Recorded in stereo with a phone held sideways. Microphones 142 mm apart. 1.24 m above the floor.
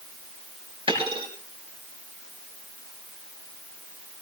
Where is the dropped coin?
40° right (ahead or behind), 6 m.